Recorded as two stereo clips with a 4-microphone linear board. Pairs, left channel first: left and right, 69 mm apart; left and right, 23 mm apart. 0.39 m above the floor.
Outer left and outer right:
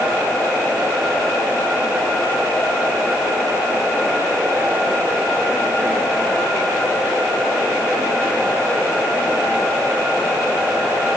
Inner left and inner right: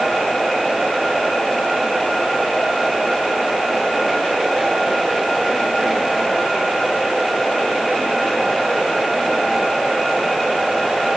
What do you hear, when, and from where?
Only background noise.